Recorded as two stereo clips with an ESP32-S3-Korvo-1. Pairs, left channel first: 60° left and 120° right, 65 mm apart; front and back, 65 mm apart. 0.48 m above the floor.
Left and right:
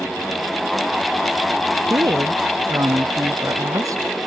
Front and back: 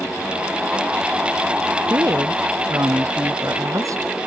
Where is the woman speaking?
150° right.